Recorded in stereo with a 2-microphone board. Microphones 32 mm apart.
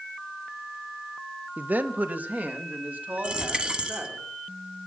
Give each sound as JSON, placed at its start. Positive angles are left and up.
{"t": 1.6, "sound": "a man speaking", "side_deg": -60, "distance_m": 0.6}
{"t": 3.2, "sound": "a dropped coin", "side_deg": -30, "distance_m": 1.3}